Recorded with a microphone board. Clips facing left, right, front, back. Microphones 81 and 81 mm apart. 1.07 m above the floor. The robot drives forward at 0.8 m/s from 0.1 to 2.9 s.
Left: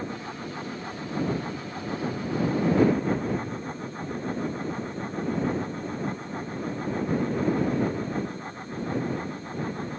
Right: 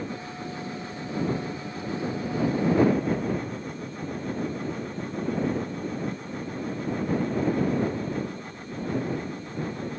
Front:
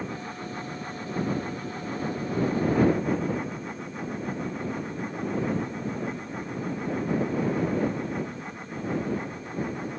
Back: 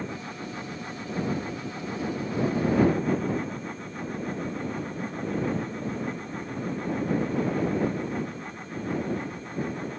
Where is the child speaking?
I don't hear a child speaking.